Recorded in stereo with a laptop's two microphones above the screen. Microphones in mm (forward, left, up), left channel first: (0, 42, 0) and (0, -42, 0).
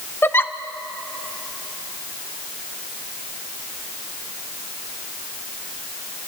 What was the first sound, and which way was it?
A giggle, 25° left (ahead or behind).